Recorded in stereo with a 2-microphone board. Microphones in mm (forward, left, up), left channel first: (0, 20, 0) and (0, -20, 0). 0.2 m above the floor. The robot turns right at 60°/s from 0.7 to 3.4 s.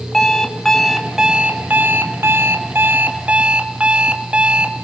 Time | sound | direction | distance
0.1 | an alarm clock | 170° left | 1.9 m